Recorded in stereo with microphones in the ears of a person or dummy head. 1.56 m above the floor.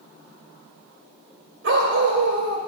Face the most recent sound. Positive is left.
turn(degrees=-55)  # may be behind; listen again after turning